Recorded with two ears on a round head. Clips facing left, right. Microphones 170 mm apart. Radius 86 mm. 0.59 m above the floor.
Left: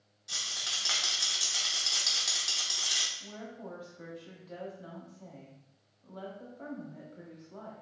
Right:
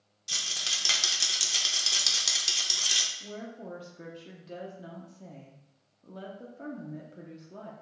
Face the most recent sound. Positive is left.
turn(degrees=-30)  # may be behind; listen again after turning